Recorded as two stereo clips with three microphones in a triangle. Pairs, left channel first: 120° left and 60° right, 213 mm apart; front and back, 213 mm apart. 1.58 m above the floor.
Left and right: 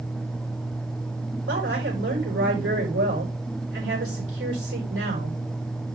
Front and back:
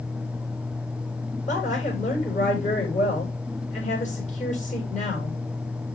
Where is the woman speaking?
55° right, 6 m.